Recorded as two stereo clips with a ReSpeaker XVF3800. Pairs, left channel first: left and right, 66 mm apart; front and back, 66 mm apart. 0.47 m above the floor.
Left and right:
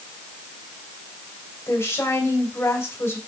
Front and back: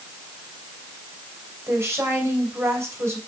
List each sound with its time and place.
1.7 s a woman speaking: 135° left, 2.5 m